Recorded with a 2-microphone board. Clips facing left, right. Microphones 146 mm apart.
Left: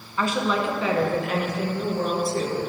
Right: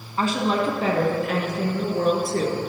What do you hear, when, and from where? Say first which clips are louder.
0.2 s a woman speaking: right 1 dB; 35° right (ahead or behind), 1.1 m; by 2.6 s 65° right (ahead or behind), 2 m